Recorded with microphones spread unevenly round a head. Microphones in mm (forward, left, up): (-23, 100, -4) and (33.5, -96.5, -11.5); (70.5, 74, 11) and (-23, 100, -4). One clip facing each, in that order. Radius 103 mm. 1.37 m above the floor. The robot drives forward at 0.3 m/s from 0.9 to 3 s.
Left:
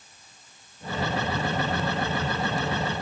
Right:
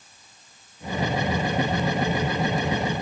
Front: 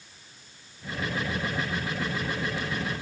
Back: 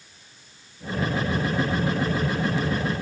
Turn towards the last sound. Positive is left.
No sound to turn to.